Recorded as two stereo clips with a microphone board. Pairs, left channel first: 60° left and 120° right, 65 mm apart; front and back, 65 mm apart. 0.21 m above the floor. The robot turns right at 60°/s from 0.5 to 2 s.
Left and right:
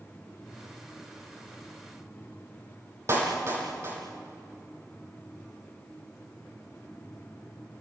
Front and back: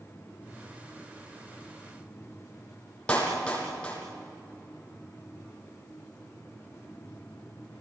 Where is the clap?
75° right, 6 m.